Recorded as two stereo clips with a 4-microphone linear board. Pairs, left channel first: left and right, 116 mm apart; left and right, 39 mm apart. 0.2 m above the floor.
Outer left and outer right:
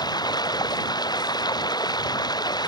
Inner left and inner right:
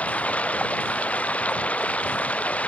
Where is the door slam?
No door slam in this recording.